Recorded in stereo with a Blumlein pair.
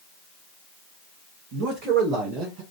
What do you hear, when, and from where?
1.5 s a man speaking: 40° right, 1.5 m; by 2.6 s 30° right, 0.8 m